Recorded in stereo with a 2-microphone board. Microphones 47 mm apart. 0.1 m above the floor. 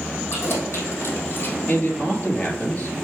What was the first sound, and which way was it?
Keys jangling, 60° left (ahead or behind).